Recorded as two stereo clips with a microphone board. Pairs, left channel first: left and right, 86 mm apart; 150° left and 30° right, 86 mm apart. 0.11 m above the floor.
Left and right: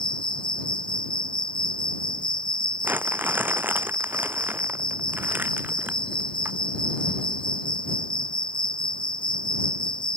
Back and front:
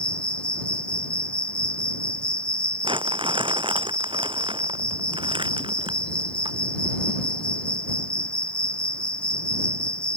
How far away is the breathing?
No breathing in this recording.